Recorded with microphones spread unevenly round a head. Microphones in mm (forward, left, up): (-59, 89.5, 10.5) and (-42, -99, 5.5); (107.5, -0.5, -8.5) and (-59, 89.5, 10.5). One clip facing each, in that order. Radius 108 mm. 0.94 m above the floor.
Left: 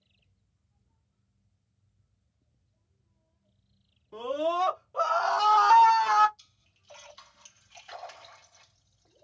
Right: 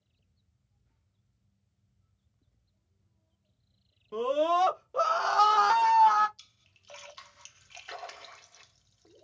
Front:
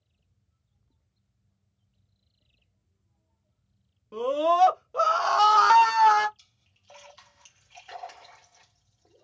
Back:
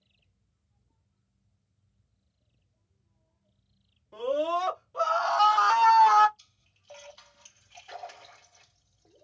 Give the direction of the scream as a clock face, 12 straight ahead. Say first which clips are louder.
Right 3 dB, front 4 dB; 2 o'clock.